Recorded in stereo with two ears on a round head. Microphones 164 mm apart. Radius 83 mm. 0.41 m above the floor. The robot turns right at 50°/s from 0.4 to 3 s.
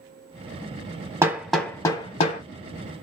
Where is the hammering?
15° right (ahead or behind), 0.9 m; by 2.4 s 45° left (ahead or behind), 0.9 m.